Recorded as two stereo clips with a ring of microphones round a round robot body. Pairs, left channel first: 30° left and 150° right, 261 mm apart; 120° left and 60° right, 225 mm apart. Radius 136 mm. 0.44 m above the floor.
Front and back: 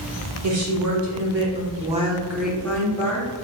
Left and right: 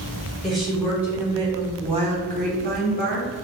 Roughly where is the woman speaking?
Behind right.